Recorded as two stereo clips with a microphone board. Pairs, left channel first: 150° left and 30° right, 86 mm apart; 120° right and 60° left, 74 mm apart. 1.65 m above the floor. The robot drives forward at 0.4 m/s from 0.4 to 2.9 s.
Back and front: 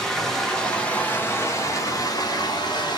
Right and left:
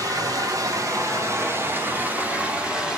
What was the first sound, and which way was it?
Running water, 65° left.